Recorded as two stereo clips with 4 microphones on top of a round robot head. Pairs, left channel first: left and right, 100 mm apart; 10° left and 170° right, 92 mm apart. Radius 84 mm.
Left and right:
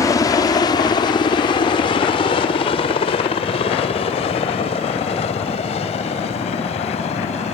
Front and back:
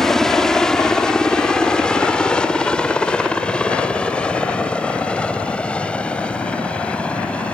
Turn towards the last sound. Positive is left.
turn(degrees=90)